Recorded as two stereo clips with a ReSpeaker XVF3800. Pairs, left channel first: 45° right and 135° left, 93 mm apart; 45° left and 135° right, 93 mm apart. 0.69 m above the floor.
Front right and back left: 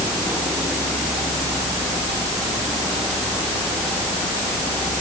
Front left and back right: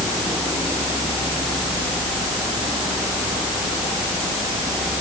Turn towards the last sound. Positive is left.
No sound to turn to.